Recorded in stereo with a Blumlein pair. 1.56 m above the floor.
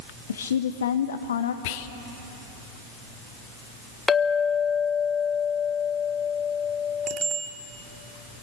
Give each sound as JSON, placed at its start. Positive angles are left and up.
{"t": 0.3, "sound": "a woman speaking", "azimuth_deg": 65, "distance_m": 1.0}
{"t": 1.6, "sound": "whispering", "azimuth_deg": 50, "distance_m": 1.2}
{"t": 4.1, "sound": "a clink", "azimuth_deg": 15, "distance_m": 1.2}
{"t": 7.1, "sound": "a bicycle bell", "azimuth_deg": -25, "distance_m": 2.5}